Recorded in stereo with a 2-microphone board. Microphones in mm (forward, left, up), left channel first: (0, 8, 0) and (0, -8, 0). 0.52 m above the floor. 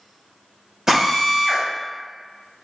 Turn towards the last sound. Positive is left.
turn(degrees=-40)  # may be behind; listen again after turning